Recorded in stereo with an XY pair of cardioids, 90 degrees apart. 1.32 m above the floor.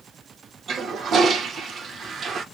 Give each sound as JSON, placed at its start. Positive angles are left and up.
{"t": 0.7, "sound": "a toilet flushing", "azimuth_deg": -65, "distance_m": 0.6}